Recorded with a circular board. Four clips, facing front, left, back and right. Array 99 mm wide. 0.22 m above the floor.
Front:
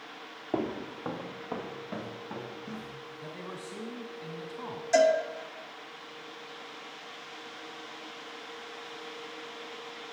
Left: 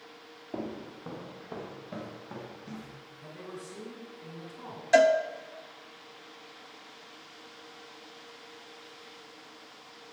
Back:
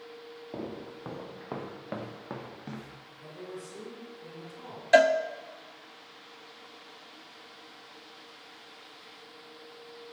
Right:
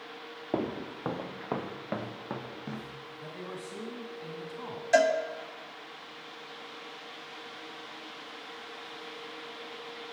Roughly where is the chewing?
I don't hear chewing.